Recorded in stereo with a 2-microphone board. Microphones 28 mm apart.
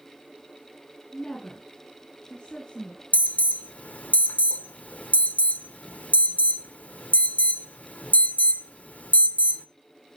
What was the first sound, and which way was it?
A woman speaking, 30° left (ahead or behind).